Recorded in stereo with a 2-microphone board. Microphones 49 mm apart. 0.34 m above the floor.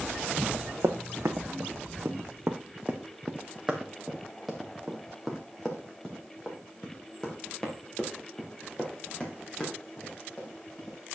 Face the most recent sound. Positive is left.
turn(degrees=20)  # may be behind; listen again after turning